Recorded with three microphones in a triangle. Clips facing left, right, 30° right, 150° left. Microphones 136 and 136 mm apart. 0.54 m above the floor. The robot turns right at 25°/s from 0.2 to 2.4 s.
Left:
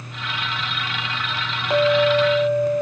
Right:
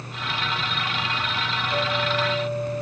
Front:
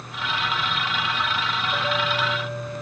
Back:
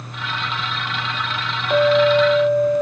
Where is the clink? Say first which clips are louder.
Left 11 dB, back 15 dB; 130° left, 1.8 m; by 2.8 s 145° left, 1.8 m.